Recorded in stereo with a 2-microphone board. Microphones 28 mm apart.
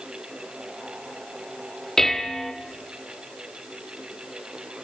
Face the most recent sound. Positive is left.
turn(degrees=15)  # may be behind; listen again after turning